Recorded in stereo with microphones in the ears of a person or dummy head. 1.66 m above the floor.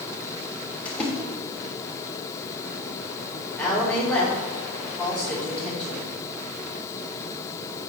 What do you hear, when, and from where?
0.8 s a splash: 5° left (ahead or behind), 3.5 m
3.6 s a woman speaking: 5° left (ahead or behind), 4.5 m